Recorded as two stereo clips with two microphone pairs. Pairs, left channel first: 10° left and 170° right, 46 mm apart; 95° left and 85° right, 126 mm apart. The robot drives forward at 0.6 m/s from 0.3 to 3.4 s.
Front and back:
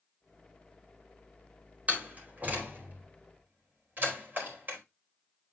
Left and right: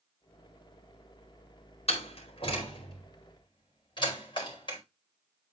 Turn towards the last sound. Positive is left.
turn(degrees=145)